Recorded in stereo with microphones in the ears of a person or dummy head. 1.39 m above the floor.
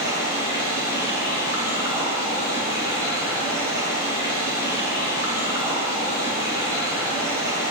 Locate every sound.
0.0 s running water: 20° right (ahead or behind), 3 m